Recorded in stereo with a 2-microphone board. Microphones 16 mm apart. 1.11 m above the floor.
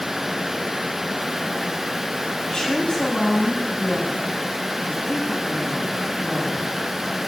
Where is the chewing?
I don't hear chewing.